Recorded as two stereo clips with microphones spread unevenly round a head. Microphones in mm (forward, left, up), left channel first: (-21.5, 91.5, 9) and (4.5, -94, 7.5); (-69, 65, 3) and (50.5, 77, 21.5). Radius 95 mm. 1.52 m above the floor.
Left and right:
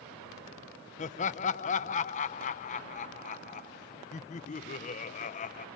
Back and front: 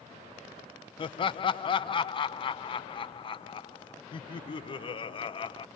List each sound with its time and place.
1.0 s laughter: 140° left, 0.7 m